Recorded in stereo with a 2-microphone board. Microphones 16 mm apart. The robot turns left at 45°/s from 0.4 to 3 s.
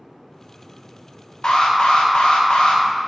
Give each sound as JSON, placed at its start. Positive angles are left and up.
{"t": 1.4, "sound": "an alarm", "azimuth_deg": 130, "distance_m": 1.0}